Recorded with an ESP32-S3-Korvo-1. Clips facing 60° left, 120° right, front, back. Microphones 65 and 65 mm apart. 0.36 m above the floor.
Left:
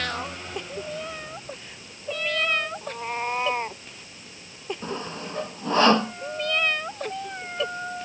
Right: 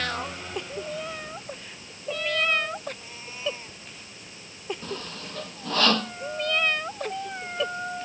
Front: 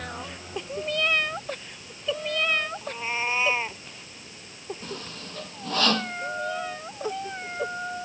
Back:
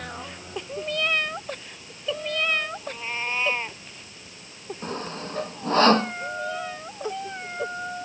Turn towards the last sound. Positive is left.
turn(degrees=125)